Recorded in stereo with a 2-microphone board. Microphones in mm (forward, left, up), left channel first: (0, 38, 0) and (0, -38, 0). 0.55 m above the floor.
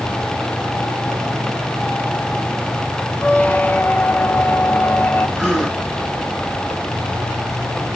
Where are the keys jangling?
I don't hear keys jangling.